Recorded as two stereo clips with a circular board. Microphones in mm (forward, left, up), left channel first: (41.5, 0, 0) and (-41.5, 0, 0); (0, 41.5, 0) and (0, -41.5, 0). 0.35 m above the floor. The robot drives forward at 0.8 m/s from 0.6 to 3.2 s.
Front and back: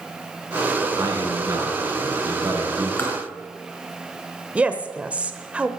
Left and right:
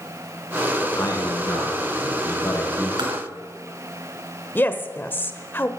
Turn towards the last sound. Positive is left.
turn(degrees=120)